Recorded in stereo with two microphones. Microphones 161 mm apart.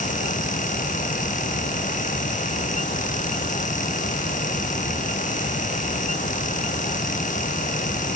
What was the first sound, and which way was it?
Only background noise.